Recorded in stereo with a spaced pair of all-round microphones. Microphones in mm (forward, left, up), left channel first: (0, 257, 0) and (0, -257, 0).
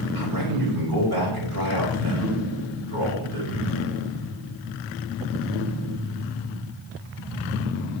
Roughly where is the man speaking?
Right.